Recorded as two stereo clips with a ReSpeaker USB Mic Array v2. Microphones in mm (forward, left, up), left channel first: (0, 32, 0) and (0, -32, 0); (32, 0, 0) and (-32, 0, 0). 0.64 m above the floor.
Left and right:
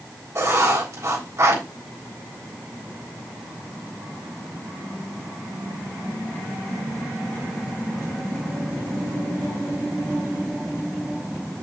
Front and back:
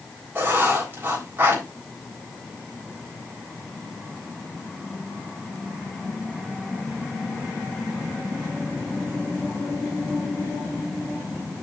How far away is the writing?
About 4 m.